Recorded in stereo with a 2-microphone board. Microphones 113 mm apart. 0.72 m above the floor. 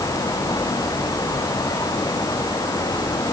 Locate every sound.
Only background noise.